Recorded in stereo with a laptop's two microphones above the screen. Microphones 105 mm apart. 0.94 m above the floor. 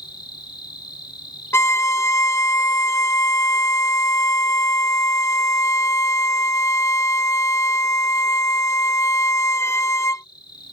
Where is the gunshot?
No gunshot in this recording.